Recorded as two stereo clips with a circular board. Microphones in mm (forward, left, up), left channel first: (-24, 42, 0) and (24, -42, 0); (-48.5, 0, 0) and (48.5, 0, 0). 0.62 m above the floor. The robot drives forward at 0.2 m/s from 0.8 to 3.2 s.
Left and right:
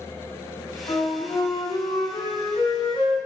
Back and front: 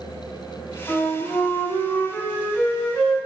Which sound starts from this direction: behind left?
A flute, at 0.9 s.